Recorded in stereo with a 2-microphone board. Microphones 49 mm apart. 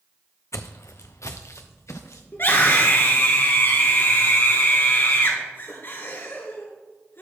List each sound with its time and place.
0.5 s footsteps: 75° left (ahead or behind), 0.6 m
2.3 s a scream: 50° left (ahead or behind), 2.5 m